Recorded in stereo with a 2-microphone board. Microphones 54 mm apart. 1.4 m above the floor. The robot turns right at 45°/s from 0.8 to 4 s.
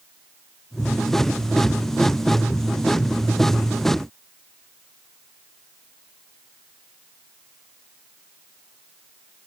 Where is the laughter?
I don't hear laughter.